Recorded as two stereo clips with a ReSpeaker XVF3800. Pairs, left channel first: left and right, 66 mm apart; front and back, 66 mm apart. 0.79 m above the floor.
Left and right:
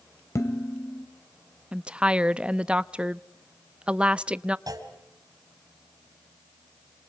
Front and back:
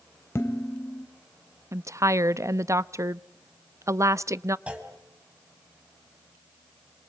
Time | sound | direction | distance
0.3 | dishes clattering | 50° left | 2.5 m
1.7 | a woman speaking | 160° right | 0.5 m
4.7 | a clunk | 105° right | 3.5 m